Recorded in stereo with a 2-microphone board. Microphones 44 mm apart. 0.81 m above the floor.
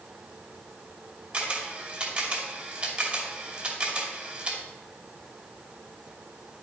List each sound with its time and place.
1.3 s a camera shutter: 30° right (ahead or behind), 2.5 m